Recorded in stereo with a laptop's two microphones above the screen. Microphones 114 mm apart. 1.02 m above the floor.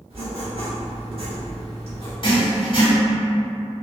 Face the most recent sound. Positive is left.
turn(degrees=45)  # may be behind; listen again after turning